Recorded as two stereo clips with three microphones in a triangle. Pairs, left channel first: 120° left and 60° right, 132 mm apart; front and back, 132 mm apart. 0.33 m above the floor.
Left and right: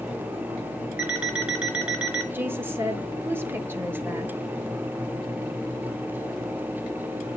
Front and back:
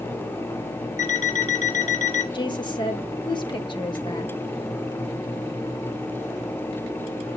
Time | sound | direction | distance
1.0 | an alarm clock | 20° left | 3.5 m
2.3 | a woman speaking | straight ahead | 1.0 m